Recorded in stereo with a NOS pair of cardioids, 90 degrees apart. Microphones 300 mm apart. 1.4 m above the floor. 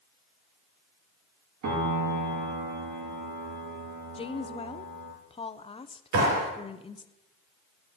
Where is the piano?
65° right, 2.5 m.